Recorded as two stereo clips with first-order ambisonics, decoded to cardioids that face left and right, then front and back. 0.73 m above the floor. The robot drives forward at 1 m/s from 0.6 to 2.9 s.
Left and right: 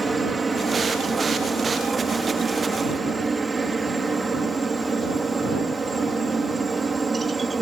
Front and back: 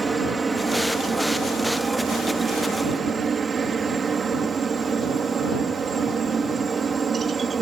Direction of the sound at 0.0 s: 125° right.